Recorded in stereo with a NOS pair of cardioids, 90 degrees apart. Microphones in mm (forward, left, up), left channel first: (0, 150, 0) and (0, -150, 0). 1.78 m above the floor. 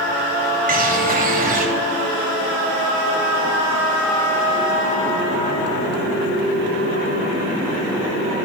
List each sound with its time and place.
0.7 s a bird: 30° right, 1.7 m